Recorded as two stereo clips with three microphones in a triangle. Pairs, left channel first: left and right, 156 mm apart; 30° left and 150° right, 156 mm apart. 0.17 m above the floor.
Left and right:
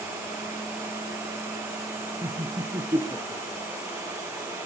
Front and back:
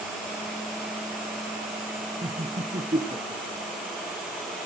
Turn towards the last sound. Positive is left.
turn(degrees=-150)